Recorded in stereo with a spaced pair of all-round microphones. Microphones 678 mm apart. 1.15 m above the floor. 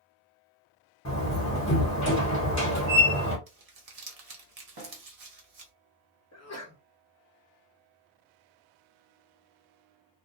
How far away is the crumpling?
About 0.9 m.